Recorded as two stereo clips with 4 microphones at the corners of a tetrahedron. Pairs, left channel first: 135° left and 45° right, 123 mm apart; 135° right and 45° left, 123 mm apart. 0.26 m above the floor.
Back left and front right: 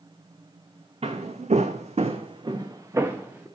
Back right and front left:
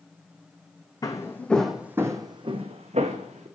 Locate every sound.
1.0 s footsteps: 80° right, 0.7 m; by 3.5 s 30° left, 1.0 m